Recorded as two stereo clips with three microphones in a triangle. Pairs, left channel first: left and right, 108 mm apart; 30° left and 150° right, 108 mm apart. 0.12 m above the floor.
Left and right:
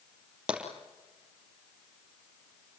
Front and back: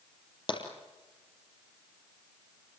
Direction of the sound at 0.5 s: 10° right.